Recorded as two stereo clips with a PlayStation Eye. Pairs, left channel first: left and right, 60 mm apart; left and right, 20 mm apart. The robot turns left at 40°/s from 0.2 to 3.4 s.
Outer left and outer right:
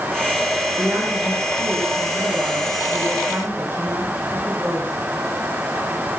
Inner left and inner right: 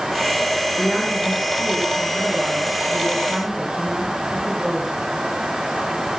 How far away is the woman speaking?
About 5.5 m.